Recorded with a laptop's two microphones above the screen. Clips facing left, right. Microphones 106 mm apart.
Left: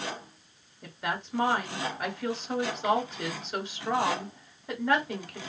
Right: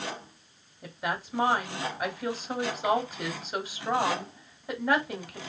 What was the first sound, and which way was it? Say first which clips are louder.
A woman speaking: right 1 dB; 5° right (ahead or behind).